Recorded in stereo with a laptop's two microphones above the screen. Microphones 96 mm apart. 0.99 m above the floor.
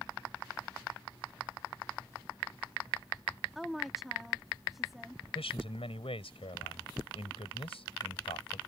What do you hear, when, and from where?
3.5 s a woman speaking: centre (ahead or behind)
5.3 s a man speaking: 75° left (ahead or behind)